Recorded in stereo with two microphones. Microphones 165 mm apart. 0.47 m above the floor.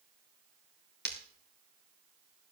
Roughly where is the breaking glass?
Right.